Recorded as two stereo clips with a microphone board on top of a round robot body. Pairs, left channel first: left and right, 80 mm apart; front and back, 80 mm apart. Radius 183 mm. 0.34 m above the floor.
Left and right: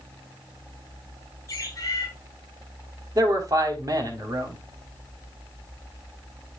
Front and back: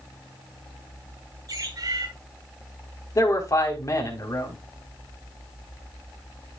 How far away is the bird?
About 4.5 m.